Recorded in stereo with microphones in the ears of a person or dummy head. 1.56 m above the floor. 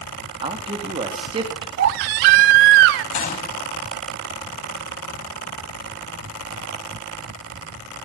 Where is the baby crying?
55° right (ahead or behind), 0.8 m.